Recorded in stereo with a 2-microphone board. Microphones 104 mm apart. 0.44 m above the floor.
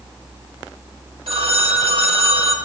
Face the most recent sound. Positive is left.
turn(degrees=-70)  # may be behind; listen again after turning